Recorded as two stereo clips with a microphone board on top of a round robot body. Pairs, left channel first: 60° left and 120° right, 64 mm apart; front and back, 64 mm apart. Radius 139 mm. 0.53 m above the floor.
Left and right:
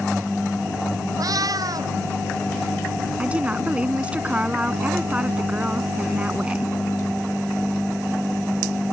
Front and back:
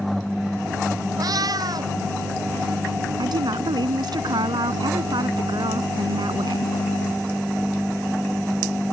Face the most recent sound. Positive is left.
turn(degrees=165)